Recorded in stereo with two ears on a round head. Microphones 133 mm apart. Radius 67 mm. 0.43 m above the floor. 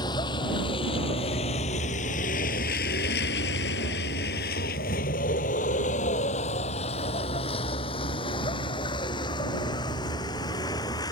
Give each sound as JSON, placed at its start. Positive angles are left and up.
{"t": 0.0, "sound": "a vehicle", "side_deg": 30}